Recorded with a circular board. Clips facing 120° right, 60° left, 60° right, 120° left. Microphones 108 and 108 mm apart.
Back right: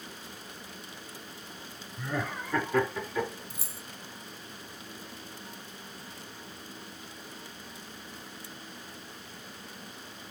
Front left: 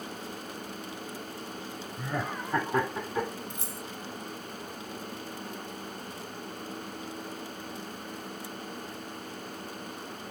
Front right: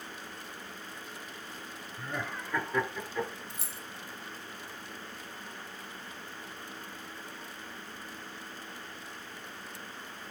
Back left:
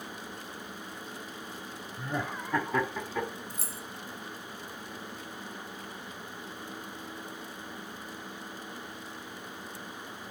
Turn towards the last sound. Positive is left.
turn(degrees=160)